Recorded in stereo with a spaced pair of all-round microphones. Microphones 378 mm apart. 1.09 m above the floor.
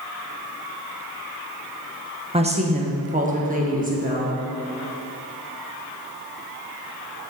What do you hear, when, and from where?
2.3 s a woman speaking: 15° right (ahead or behind), 0.7 m; by 4.3 s 20° right (ahead or behind), 1.8 m